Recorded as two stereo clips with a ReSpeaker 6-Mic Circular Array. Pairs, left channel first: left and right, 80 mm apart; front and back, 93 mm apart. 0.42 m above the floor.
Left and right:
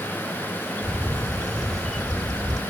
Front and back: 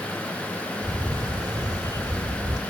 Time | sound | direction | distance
0.8 | a camera shutter | 170° left | 1.1 m